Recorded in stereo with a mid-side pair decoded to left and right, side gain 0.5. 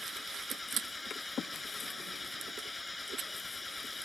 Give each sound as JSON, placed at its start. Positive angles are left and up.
{"t": 0.0, "sound": "an engine running", "azimuth_deg": 20}